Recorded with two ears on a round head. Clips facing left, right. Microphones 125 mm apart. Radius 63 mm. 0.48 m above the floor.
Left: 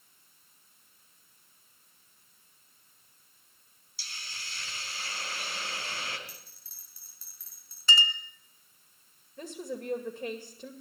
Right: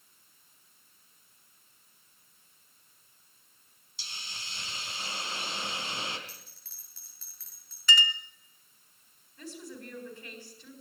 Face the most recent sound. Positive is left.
turn(degrees=45)  # may be behind; listen again after turning